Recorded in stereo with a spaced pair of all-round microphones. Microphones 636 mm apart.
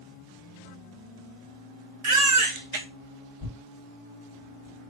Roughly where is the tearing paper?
Right.